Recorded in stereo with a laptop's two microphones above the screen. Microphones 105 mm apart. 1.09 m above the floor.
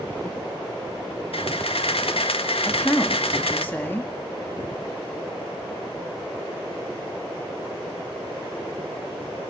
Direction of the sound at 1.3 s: 70° left (ahead or behind).